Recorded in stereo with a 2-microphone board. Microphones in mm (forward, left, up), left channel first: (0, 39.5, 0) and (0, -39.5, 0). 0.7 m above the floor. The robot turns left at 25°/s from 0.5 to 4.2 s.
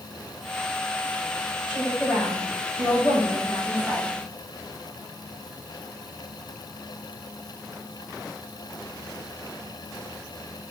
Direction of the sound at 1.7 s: 170° right.